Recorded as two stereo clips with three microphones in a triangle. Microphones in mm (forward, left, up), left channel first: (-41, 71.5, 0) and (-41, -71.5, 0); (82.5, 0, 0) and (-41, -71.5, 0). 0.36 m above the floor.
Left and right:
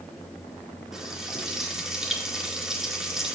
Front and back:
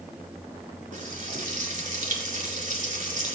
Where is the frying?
175° right, 5 m.